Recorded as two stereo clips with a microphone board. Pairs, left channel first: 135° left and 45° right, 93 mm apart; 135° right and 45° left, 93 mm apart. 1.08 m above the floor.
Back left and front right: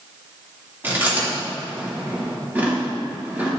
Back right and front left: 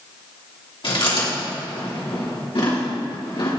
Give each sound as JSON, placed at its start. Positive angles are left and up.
{"t": 0.8, "sound": "chewing", "azimuth_deg": -115, "distance_m": 3.0}